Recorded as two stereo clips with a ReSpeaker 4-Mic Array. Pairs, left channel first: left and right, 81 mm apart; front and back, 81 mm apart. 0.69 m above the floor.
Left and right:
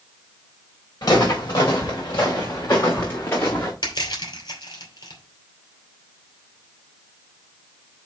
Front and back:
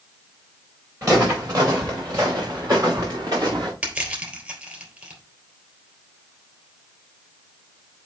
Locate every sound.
1.0 s footsteps: 130° left, 4 m; by 3.7 s 145° left, 3 m
3.8 s crushing: 110° left, 3 m